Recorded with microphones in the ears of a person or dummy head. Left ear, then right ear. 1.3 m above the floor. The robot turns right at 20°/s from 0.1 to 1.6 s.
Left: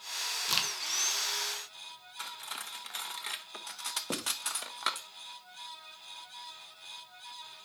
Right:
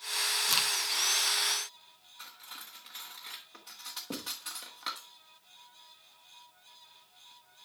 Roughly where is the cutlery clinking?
Left.